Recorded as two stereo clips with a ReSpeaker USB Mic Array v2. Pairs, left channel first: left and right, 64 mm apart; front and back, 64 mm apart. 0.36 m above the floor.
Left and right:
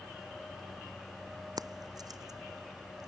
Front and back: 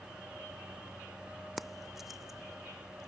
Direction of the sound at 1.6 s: 90° right.